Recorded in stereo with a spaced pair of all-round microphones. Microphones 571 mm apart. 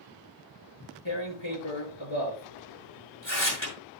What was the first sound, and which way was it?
Tearing paper, 55° left (ahead or behind).